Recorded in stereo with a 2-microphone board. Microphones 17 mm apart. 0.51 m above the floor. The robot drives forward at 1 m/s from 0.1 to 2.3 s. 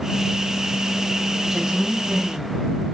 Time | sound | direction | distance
1.5 | a woman speaking | 35° right (ahead or behind) | 3 m